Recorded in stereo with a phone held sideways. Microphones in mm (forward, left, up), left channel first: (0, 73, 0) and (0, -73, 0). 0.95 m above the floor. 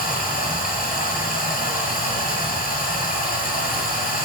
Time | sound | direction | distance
0.0 | running water | 80° left | 5 m